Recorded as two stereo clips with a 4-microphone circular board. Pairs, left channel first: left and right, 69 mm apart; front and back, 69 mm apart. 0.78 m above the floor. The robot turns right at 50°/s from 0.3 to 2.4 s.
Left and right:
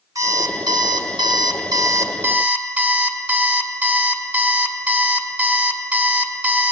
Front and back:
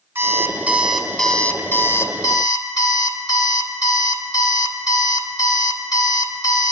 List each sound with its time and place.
0.1 s an alarm clock: 125° right, 0.7 m; by 6.7 s 20° right, 0.7 m